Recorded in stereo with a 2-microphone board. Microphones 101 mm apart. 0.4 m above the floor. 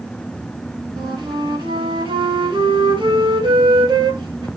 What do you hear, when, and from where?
1.0 s a flute: 50° right (ahead or behind), 2.0 m